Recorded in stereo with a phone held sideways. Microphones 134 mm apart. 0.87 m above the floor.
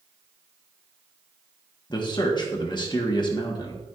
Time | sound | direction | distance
1.9 | a man speaking | 35° left (ahead or behind) | 1.0 m